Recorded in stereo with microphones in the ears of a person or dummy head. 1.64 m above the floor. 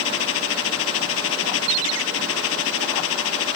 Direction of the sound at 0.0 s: 85° left.